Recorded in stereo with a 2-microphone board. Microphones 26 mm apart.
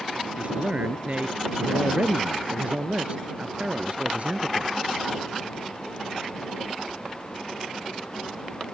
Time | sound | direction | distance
0.4 | a man speaking | 50° right (ahead or behind) | ?